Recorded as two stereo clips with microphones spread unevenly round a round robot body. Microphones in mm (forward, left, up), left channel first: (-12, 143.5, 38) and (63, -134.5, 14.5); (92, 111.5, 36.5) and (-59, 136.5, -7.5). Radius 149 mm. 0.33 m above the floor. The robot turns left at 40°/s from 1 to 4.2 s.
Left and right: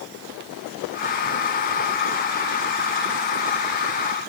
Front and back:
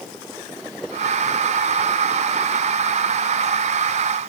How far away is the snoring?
I don't hear snoring.